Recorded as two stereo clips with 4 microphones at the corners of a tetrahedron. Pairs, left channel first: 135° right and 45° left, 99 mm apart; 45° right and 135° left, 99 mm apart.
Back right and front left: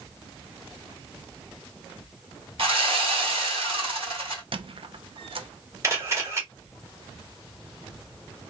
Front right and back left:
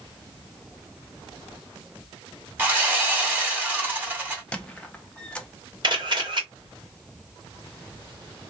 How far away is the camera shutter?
About 1.6 m.